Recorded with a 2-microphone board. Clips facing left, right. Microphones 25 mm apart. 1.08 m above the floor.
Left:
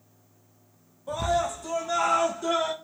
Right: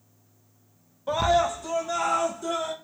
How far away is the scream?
About 0.9 m.